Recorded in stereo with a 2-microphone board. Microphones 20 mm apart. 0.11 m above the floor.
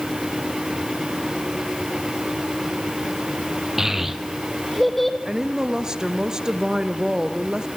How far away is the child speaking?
About 3 m.